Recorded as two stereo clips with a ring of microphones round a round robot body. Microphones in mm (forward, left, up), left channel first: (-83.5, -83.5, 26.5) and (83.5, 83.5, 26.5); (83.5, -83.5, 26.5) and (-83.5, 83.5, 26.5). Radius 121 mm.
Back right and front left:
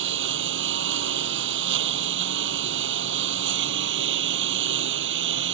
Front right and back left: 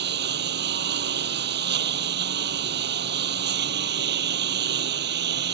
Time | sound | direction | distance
0.0 | a lawn mower | 85° left | ?